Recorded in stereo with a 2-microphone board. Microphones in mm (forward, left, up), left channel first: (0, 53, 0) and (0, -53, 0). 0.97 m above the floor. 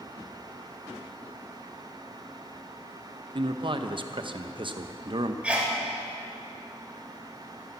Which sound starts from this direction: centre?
A sneeze, at 5.4 s.